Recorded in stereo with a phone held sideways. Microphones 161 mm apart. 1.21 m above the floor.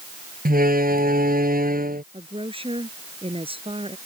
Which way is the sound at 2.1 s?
35° right (ahead or behind).